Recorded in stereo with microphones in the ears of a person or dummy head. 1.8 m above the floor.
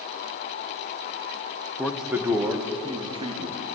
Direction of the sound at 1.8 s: 10° left (ahead or behind).